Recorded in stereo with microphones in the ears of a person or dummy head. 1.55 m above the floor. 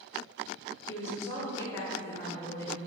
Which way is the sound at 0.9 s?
15° left (ahead or behind).